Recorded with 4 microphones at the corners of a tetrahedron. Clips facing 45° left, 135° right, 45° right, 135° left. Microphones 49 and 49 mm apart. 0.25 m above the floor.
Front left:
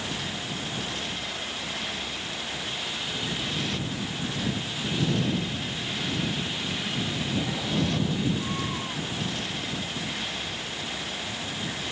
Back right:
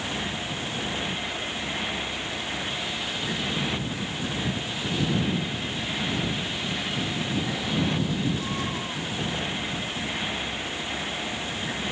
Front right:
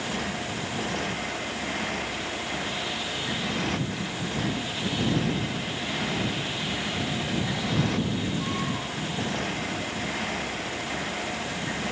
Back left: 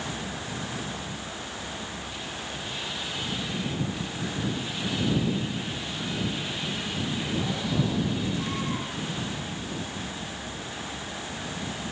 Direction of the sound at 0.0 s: 65° right.